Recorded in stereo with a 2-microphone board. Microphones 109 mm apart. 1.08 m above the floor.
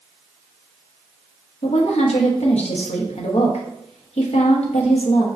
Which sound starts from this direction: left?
A woman speaking, at 1.6 s.